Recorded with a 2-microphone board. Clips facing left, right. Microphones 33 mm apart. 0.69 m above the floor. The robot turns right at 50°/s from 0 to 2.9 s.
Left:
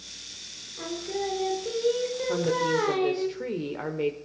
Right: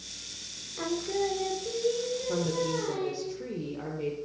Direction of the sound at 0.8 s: 20° right.